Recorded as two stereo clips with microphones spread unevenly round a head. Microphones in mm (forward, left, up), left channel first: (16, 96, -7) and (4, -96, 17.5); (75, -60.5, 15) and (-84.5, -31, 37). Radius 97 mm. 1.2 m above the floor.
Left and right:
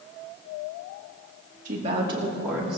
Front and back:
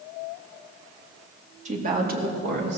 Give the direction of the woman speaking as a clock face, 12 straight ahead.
5 o'clock.